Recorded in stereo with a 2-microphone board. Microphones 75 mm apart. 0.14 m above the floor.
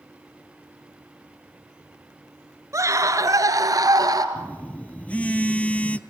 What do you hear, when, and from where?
2.7 s a scream: 45° right (ahead or behind), 2.5 m; by 4.2 s 55° right (ahead or behind), 3 m
4.3 s a phone buzzing: 20° left (ahead or behind), 0.6 m